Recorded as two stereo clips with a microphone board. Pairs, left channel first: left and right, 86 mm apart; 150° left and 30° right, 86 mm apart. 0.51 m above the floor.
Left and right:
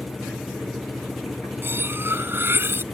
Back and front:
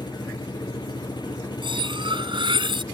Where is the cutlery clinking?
25° right.